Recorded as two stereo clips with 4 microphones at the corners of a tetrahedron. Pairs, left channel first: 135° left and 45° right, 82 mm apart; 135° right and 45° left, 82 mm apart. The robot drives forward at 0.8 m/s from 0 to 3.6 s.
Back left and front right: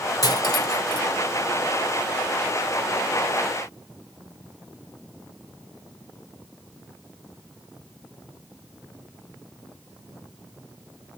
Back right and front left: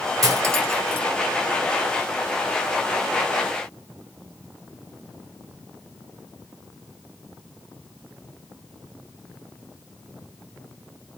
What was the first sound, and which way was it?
Cutlery clinking, 90° left.